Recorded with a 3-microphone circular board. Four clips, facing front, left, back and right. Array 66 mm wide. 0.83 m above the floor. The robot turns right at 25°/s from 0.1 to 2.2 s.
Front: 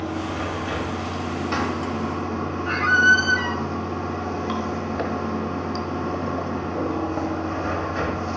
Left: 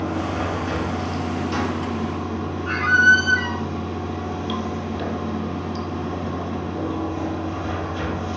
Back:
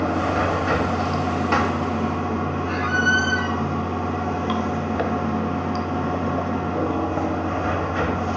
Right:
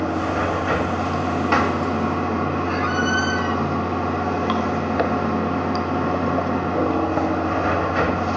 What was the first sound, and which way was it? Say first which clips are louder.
Running water: right 3 dB, back 6 dB; 150° right.